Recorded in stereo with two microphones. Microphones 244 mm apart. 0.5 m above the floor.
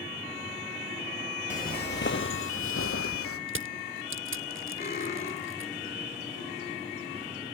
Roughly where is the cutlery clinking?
Left.